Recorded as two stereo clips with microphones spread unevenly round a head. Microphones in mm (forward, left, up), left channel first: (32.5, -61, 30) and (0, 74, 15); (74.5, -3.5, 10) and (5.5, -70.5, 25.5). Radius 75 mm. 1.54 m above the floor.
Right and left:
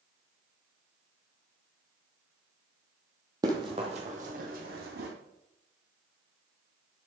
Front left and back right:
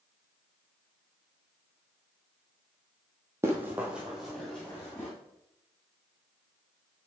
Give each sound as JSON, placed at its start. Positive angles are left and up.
{"t": 3.4, "sound": "running footsteps", "azimuth_deg": 170, "distance_m": 2.0}